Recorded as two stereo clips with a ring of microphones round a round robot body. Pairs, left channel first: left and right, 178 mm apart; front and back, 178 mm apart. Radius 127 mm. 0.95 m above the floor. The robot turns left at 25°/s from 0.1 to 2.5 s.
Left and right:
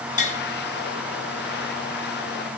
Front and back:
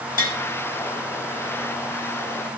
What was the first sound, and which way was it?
Tapping, 45° left.